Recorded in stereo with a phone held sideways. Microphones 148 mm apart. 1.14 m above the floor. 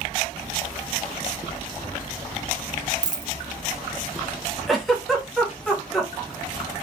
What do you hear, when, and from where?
3.0 s a dropped coin: 25° right (ahead or behind), 0.5 m
4.7 s a giggle: centre (ahead or behind), 1.1 m